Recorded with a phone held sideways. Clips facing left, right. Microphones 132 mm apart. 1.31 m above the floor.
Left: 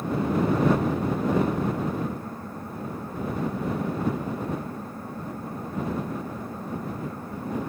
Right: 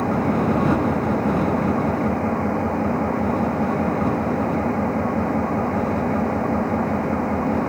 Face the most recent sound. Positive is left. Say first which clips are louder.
# right 5 dB
turn(degrees=-70)  # may be behind; listen again after turning